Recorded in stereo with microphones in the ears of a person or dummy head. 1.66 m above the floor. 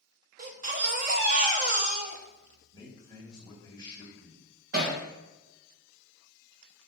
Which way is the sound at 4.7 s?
60° right (ahead or behind).